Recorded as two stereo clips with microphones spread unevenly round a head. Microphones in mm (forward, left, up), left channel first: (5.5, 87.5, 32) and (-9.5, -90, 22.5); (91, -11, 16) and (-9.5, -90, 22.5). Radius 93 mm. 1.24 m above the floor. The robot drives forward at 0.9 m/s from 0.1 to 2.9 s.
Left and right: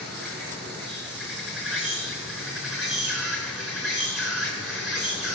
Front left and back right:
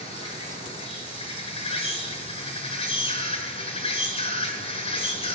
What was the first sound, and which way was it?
An insect, 5° right.